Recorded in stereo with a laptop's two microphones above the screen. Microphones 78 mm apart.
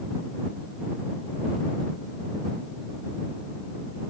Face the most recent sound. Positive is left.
No sound to turn to.